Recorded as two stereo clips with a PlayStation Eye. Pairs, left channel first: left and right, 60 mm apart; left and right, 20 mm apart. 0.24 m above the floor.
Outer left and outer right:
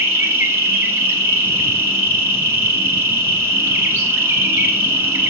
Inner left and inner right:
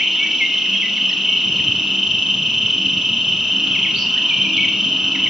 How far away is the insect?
About 1.1 m.